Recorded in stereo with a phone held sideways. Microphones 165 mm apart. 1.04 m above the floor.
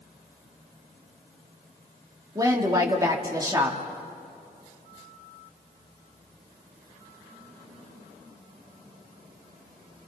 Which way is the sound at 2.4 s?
20° right (ahead or behind).